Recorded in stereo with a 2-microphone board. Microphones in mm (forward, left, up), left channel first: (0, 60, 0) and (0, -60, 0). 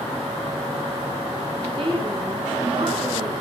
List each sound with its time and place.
1.6 s a woman speaking: 40° right (ahead or behind), 6.5 m